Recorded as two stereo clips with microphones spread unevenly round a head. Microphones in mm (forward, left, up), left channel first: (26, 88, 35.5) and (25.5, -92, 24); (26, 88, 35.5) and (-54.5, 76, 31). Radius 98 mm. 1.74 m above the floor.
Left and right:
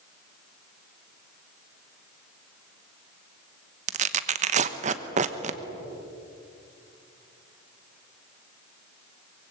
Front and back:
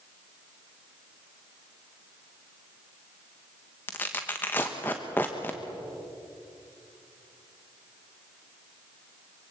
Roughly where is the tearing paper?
Ahead right.